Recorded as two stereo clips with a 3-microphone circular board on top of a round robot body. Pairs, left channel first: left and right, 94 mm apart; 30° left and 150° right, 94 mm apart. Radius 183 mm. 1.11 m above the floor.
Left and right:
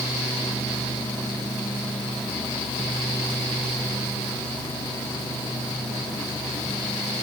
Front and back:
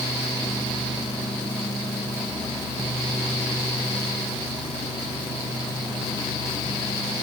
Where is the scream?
I don't hear a scream.